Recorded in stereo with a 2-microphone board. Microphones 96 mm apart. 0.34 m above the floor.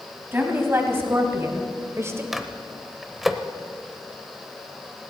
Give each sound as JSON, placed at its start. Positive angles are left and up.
{"t": 0.3, "sound": "a woman speaking", "side_deg": -25, "distance_m": 3.0}
{"t": 2.3, "sound": "a microwave", "side_deg": 0, "distance_m": 0.9}